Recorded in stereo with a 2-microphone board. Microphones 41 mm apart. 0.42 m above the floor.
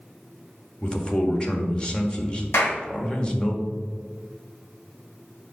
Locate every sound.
0.8 s a man speaking: 25° left (ahead or behind), 1.2 m
2.5 s a clap: 75° left (ahead or behind), 2.5 m